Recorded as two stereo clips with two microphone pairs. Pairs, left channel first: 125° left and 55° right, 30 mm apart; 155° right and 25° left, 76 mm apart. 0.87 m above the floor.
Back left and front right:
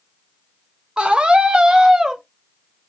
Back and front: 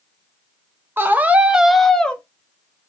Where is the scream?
20° right, 0.9 m; by 2.2 s 100° right, 0.7 m.